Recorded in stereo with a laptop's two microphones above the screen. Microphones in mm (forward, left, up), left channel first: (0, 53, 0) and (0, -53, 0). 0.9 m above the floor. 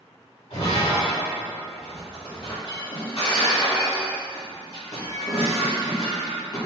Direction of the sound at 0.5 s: 85° left.